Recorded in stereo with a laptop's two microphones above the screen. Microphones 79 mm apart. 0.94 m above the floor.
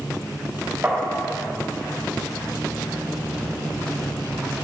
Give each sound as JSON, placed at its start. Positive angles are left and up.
{"t": 0.8, "sound": "tapping", "side_deg": -25, "distance_m": 1.6}